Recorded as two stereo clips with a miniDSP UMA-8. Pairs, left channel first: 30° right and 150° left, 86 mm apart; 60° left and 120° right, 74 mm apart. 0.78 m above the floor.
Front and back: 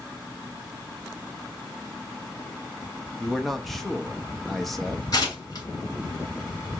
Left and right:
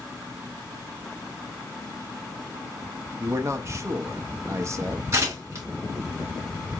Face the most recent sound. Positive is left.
turn(degrees=-70)